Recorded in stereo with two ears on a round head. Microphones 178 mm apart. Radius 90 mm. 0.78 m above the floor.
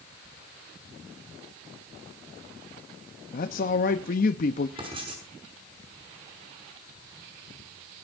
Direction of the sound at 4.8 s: 30° right (ahead or behind).